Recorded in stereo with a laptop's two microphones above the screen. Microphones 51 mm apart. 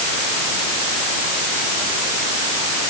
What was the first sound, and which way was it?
Only background noise.